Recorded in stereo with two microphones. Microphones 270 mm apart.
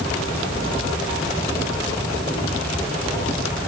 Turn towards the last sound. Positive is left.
No sound to turn to.